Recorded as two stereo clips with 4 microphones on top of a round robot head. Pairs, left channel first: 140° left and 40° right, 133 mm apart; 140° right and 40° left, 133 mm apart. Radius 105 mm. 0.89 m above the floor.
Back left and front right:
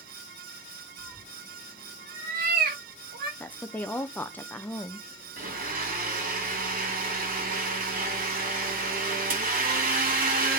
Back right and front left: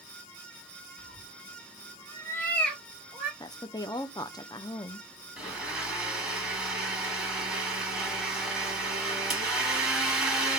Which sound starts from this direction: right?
A cat meowing, at 1.0 s.